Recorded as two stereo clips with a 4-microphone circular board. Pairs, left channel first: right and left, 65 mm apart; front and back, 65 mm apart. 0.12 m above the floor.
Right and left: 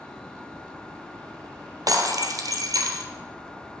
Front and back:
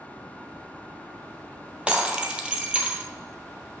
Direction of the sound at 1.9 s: 110° left.